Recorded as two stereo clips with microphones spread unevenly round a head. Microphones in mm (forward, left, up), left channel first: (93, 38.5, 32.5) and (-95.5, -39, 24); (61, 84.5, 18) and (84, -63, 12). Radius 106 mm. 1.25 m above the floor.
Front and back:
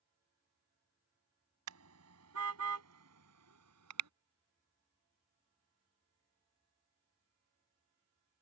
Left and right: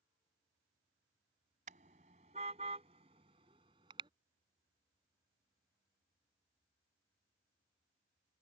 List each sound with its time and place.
1.7 s a car horn: 140° right; by 4.1 s 150° right